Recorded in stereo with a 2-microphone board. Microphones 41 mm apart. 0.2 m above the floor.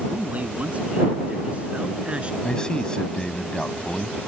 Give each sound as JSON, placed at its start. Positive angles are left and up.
{"t": 0.1, "sound": "a man speaking", "side_deg": -40}
{"t": 2.4, "sound": "a man speaking", "side_deg": 20}